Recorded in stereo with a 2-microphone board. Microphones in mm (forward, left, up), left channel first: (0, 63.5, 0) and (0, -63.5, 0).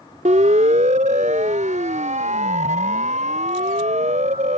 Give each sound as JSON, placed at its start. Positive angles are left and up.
{"t": 0.2, "sound": "a siren", "side_deg": -75}